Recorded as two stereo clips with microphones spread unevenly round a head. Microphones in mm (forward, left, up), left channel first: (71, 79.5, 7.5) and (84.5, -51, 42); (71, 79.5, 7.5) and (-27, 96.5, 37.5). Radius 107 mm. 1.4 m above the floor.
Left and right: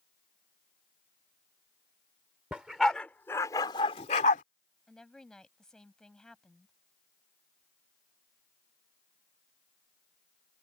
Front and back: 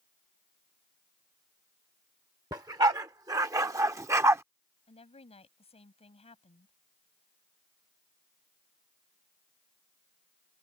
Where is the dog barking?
155° right; by 4.4 s 145° left.